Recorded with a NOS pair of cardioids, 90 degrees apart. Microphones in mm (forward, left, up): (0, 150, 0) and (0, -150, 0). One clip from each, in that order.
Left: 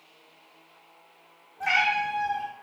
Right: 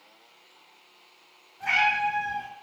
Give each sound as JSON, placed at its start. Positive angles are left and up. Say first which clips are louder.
{"t": 1.6, "sound": "a cat meowing", "louder": "right 1 dB", "azimuth_deg": 40, "distance_m": 1.8}